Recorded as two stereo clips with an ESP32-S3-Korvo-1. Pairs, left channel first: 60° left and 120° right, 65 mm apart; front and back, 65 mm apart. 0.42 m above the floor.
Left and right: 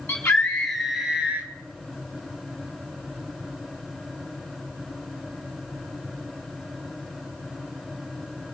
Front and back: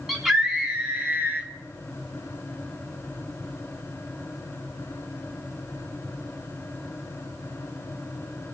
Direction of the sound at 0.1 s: 105° left.